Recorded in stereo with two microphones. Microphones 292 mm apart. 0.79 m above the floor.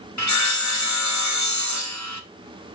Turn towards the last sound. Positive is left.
turn(degrees=75)  # may be behind; listen again after turning